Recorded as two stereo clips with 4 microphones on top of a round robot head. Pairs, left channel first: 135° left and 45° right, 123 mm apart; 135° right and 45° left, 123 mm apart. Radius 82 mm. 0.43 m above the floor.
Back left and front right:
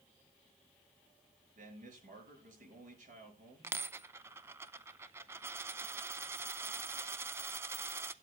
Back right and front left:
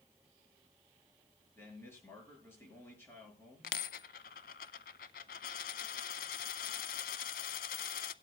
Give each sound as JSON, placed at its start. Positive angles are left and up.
{"t": 1.6, "sound": "a man speaking", "azimuth_deg": -60, "distance_m": 6.5}
{"t": 3.6, "sound": "a dropped coin", "azimuth_deg": -120, "distance_m": 0.6}